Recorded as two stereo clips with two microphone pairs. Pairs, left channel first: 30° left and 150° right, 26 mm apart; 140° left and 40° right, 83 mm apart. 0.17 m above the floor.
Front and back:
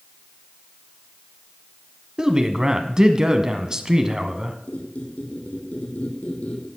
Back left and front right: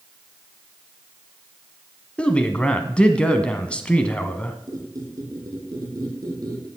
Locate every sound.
2.2 s a man speaking: 165° right, 1.2 m
4.7 s a squeak: 5° left, 3 m